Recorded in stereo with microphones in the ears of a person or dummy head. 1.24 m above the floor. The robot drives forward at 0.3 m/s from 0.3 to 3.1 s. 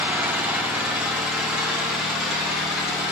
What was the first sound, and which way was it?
An engine running, 10° right (ahead or behind).